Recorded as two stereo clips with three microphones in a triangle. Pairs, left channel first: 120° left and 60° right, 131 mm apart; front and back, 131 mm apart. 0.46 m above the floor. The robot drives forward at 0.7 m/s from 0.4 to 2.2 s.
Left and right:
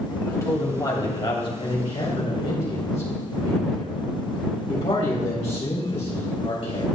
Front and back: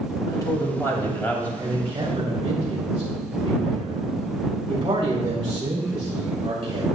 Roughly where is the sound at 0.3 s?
Ahead left.